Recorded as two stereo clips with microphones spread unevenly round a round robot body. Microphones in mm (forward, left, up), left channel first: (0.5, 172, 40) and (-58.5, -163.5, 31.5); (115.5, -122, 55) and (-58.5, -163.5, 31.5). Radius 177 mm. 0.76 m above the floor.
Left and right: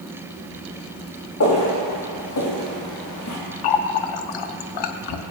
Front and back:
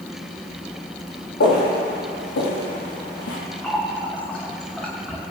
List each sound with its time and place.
1.4 s footsteps: 30° left, 5 m; by 3.4 s 35° left, 3.5 m
3.6 s a running tap: 100° left, 0.7 m